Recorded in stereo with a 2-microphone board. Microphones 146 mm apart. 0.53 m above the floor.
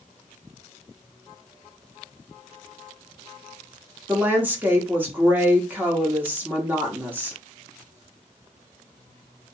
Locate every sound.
4.1 s a woman speaking: 15° right (ahead or behind), 0.9 m